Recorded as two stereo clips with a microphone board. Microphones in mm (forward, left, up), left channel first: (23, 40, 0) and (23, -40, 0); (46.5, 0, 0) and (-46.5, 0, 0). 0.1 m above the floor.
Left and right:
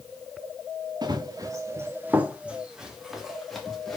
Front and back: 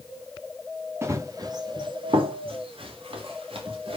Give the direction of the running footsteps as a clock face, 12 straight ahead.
4 o'clock.